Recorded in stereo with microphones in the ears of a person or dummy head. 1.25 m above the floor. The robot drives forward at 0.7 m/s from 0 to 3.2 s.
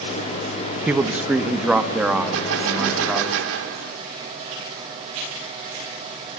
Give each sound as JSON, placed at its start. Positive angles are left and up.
{"t": 0.9, "sound": "a man speaking", "side_deg": -10, "distance_m": 0.9}
{"t": 2.3, "sound": "a gunshot", "side_deg": -85, "distance_m": 2.5}